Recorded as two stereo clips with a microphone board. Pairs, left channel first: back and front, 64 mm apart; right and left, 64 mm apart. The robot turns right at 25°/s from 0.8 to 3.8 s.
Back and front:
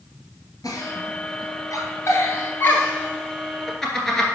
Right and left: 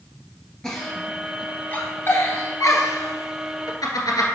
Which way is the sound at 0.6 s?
170° right.